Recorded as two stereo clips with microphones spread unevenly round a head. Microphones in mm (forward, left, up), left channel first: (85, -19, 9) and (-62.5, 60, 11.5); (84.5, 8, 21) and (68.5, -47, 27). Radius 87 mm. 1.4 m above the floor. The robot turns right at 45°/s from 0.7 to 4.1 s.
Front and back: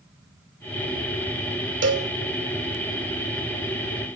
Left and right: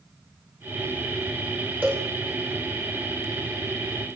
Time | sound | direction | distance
1.8 | a cowbell | 175° left | 2.5 m